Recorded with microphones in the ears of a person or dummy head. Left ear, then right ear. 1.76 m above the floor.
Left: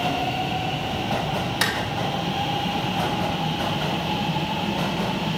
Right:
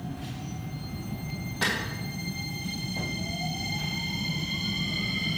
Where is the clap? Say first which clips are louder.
Left 3 dB; 70° left (ahead or behind), 2.5 m.